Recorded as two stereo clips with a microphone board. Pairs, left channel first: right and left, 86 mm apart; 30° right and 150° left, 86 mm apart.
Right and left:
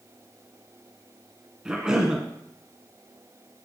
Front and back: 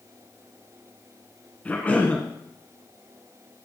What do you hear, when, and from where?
1.6 s a cough: 15° left, 1.3 m